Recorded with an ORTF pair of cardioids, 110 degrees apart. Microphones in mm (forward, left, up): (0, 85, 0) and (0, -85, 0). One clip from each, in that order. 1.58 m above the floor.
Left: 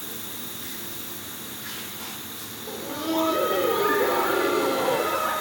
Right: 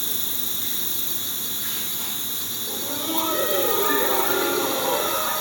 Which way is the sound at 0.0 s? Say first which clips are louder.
Right 7 dB; 65° right.